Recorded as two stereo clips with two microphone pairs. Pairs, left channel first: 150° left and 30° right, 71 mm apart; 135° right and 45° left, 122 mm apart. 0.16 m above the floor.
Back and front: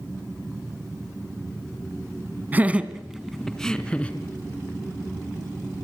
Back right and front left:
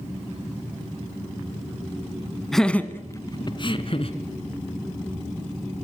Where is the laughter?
50° right, 1.5 m; by 4.1 s 145° right, 2 m.